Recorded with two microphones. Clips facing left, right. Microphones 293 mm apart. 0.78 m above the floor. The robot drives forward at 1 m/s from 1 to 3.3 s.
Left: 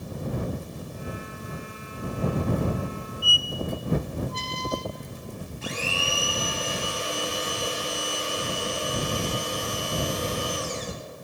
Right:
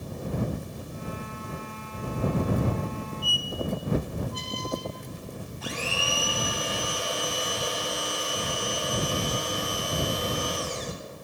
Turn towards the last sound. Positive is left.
turn(degrees=30)  # may be behind; listen again after turning